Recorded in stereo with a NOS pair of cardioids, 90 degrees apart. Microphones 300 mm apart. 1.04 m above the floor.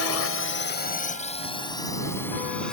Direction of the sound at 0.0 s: 55° left.